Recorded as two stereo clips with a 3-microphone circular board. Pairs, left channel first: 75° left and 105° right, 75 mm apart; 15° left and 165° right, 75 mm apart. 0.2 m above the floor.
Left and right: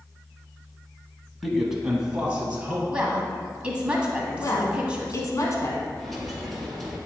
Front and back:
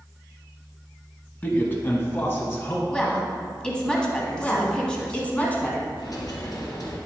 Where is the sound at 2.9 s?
50° right, 1.3 m.